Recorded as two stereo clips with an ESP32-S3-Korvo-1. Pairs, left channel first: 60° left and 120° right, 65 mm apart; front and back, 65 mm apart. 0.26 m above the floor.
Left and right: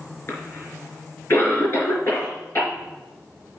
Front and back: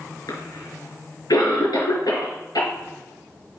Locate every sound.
0.3 s a cough: 10° left, 3.5 m